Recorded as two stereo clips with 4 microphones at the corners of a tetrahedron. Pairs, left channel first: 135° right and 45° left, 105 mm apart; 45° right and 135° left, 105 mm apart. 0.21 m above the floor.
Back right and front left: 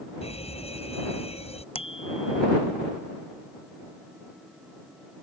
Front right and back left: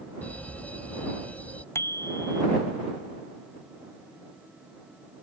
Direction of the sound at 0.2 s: 120° right.